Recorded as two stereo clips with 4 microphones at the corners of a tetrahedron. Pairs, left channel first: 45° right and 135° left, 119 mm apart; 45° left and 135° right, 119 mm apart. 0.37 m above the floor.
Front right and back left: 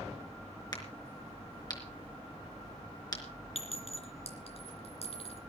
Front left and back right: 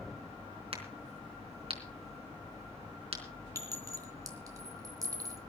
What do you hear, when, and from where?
0.7 s a crack: 100° right, 4 m
3.5 s a clink: 75° right, 3 m